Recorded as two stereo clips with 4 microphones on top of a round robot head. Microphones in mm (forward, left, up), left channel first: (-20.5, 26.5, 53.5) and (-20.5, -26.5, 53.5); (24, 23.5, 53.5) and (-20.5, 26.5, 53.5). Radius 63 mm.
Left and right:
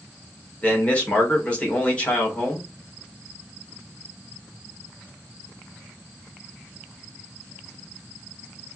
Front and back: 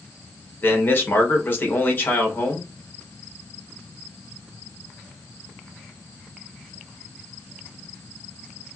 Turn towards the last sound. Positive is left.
turn(degrees=30)